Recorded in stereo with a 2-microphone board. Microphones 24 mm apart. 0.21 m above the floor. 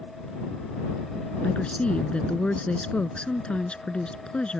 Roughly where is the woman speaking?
Left.